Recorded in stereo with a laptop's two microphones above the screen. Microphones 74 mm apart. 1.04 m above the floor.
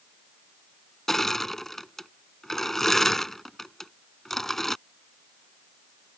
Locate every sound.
1.1 s crushing: 5° left (ahead or behind)